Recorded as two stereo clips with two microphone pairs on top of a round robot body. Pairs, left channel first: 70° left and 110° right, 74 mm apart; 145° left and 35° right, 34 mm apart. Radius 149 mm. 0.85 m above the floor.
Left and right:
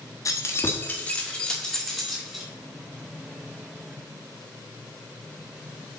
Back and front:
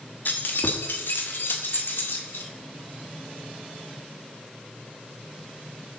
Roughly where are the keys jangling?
Behind left.